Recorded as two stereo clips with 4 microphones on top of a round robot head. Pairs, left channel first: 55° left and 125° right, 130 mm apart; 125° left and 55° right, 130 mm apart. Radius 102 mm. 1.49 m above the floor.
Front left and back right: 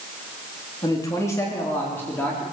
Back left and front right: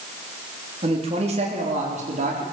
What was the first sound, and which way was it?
A man speaking, 10° right.